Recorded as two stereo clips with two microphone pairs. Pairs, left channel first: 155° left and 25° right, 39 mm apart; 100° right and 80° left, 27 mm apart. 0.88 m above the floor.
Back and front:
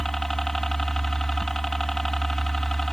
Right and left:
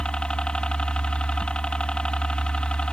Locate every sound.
0.0 s a helicopter: 125° right